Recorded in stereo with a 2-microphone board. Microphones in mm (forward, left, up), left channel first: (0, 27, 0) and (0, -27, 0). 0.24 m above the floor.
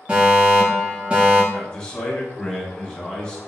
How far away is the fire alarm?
About 2.0 m.